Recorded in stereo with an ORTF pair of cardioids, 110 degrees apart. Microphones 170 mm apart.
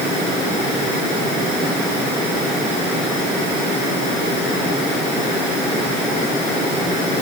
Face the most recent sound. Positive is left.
No sound to turn to.